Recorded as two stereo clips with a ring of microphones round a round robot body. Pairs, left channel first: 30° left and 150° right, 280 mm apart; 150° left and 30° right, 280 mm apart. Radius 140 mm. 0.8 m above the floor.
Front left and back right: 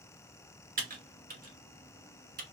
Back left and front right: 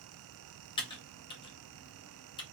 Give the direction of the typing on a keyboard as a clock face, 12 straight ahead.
5 o'clock.